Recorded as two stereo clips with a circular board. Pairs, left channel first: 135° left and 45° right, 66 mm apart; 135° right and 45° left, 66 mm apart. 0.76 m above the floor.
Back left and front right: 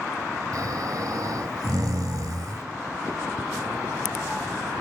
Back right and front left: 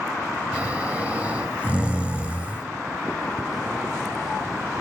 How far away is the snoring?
About 1.4 m.